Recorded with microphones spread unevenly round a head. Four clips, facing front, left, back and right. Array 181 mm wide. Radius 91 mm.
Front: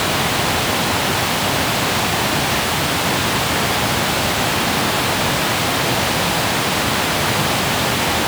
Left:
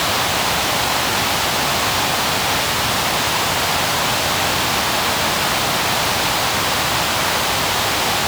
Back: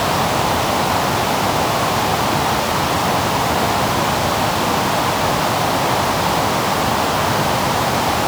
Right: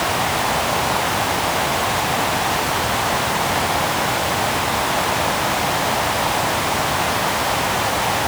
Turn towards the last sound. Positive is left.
No sound to turn to.